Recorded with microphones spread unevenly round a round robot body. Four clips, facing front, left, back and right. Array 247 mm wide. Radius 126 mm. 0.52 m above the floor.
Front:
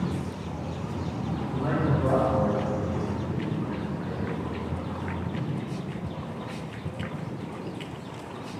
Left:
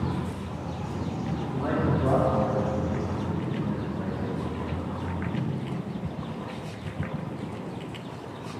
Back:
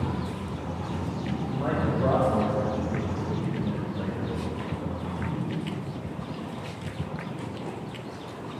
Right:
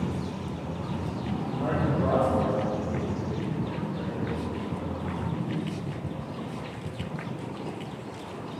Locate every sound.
1.5 s a man speaking: 145° right, 2.5 m; by 4.4 s 170° left, 1.9 m